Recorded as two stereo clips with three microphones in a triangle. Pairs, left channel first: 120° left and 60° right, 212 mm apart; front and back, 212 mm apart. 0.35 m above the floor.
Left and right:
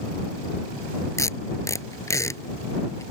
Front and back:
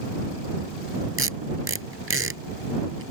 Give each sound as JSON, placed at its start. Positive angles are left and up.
{"t": 1.2, "sound": "tape being pulled", "azimuth_deg": -165}